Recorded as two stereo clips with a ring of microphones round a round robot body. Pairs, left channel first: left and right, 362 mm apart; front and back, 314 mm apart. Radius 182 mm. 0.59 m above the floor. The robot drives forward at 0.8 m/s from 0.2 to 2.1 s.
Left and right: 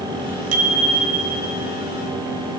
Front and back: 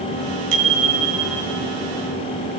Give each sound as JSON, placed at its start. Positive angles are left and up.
{"t": 0.5, "sound": "a bicycle bell", "azimuth_deg": -140, "distance_m": 3.5}